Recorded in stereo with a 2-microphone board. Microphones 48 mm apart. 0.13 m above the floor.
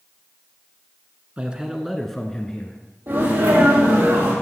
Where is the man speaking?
25° right (ahead or behind), 1.2 m; by 2.8 s 20° left (ahead or behind), 1.5 m.